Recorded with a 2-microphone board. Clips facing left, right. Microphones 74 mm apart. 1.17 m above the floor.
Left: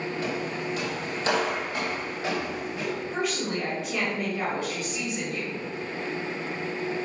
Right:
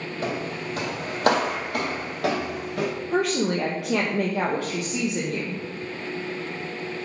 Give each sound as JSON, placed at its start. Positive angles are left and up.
{"t": 0.2, "sound": "footsteps", "side_deg": -40, "distance_m": 2.5}
{"t": 3.1, "sound": "a woman speaking", "side_deg": -75, "distance_m": 1.1}